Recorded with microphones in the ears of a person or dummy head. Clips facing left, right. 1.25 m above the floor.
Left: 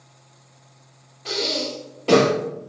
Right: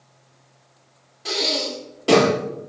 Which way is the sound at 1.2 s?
5° right (ahead or behind).